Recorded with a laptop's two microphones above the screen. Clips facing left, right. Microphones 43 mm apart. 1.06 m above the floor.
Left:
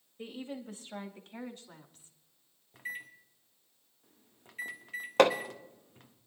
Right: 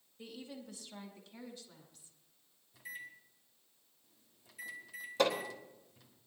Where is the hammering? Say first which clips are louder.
Left 8 dB; 75° left (ahead or behind), 1.0 m.